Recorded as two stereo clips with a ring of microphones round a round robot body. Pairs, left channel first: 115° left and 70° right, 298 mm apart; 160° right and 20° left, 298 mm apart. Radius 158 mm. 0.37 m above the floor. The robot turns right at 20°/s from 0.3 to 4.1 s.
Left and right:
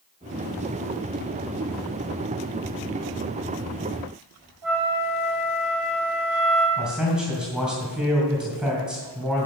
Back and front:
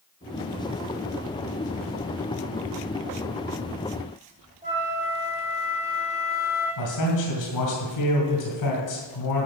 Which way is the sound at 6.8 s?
155° right.